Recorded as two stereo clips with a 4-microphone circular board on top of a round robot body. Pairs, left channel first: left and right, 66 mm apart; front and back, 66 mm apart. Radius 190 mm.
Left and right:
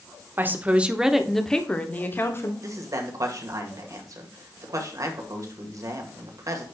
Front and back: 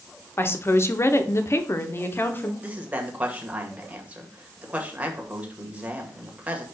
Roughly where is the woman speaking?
Ahead right.